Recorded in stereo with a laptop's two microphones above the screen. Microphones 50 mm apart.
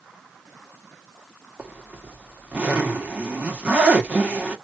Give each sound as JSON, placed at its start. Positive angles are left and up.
{"t": 1.6, "sound": "a zipper", "side_deg": -25, "distance_m": 1.7}